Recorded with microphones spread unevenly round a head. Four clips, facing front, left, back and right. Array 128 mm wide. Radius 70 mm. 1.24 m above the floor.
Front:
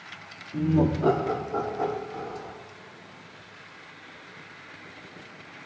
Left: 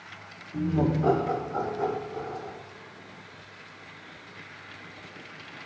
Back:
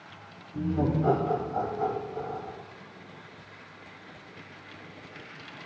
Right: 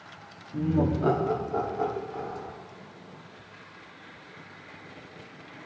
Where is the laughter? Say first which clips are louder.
Even, front 4 dB; 25° right, 3 m; by 2.5 s 55° right, 5 m.